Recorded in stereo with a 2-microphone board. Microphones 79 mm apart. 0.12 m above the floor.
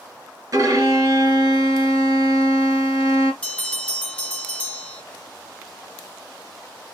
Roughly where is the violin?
Right.